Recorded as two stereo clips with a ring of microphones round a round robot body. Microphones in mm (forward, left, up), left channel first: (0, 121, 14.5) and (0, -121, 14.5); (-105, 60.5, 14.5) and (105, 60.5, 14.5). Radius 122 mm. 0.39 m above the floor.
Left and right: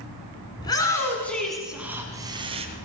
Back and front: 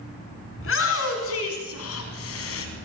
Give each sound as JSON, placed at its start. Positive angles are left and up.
{"t": 0.6, "sound": "a shout", "azimuth_deg": 165, "distance_m": 5.0}